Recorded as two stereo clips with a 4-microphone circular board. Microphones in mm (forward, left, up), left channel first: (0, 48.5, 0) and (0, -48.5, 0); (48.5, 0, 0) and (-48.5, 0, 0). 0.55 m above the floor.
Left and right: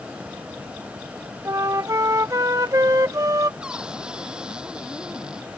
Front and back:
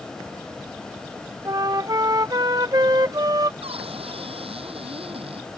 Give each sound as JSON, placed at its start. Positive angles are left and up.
{"t": 1.4, "sound": "a flute", "azimuth_deg": -140}
{"t": 3.6, "sound": "a cupboard door", "azimuth_deg": -170}